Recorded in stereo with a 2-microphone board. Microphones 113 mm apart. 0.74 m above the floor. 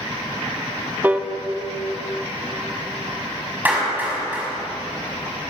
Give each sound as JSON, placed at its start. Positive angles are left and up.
{"t": 1.0, "sound": "a piano", "side_deg": -15, "distance_m": 0.8}
{"t": 3.6, "sound": "a clap", "side_deg": -15, "distance_m": 5.5}